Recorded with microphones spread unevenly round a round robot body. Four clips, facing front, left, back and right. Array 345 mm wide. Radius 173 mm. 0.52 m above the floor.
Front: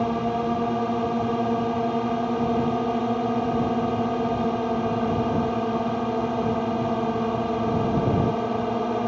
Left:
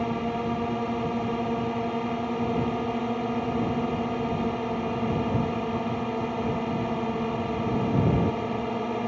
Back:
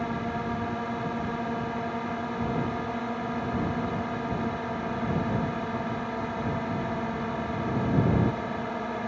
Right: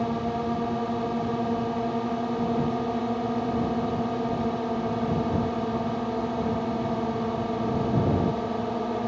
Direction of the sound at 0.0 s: 10° right.